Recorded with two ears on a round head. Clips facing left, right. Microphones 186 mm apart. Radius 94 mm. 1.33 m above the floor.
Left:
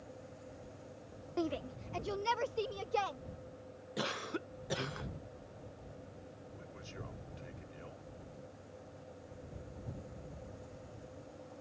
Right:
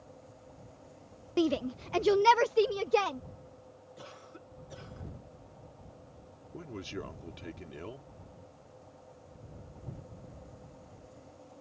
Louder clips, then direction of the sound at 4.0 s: Left 12 dB; 85° left.